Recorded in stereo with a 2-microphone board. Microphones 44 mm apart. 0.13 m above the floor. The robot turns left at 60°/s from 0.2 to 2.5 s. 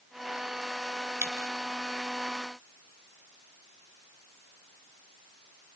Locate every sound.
1.2 s a dropped coin: 55° right (ahead or behind), 3 m; by 1.5 s 75° right (ahead or behind), 3 m